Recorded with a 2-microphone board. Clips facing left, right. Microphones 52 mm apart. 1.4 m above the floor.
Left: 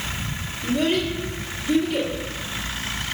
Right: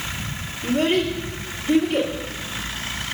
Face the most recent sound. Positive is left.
turn(degrees=-20)  # may be behind; listen again after turning